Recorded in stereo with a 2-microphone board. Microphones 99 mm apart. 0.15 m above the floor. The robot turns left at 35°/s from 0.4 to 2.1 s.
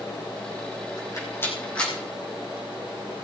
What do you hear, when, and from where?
1.0 s a rattle: 40° left (ahead or behind), 5 m; by 1.9 s 10° left (ahead or behind), 5 m